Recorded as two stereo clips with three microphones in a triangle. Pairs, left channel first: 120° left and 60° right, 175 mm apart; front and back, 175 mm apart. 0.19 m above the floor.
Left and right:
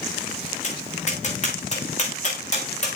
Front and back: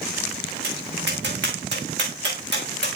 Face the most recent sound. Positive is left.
turn(degrees=170)